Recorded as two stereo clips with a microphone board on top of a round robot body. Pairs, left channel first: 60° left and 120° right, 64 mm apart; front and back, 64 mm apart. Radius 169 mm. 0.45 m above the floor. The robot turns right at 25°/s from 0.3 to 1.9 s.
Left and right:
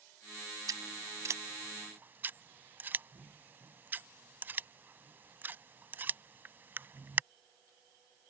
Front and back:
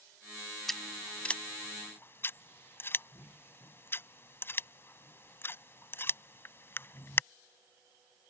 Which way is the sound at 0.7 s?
90° right.